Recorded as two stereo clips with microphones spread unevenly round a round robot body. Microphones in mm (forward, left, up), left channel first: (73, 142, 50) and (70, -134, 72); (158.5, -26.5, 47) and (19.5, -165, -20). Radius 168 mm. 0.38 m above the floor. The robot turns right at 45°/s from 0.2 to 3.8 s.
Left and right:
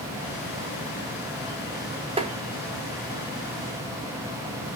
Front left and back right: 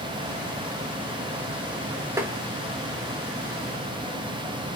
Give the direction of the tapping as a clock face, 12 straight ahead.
5 o'clock.